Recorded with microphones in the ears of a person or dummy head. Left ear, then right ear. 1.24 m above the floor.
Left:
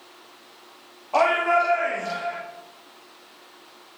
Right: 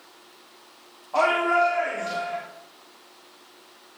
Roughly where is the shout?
Left.